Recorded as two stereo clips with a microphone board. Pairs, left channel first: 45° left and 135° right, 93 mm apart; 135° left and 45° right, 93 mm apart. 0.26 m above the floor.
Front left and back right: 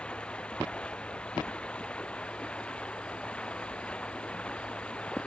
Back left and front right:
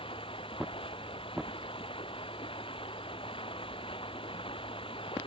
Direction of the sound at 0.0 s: 125° left.